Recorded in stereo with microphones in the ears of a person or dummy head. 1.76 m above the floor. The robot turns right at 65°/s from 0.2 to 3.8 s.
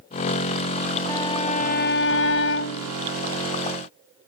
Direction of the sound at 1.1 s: 15° left.